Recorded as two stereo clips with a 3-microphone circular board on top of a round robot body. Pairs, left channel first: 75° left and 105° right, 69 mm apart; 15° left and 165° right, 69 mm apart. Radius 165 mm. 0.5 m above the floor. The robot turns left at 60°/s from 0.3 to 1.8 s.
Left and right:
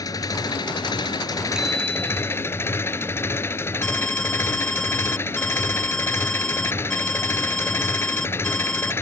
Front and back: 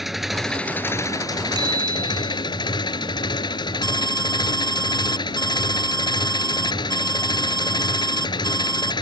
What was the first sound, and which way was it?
An engine running, 110° left.